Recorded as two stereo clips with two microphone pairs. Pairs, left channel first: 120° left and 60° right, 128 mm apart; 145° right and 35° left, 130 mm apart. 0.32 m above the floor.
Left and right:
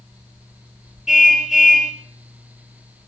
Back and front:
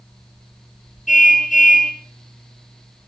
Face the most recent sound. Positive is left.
turn(degrees=-145)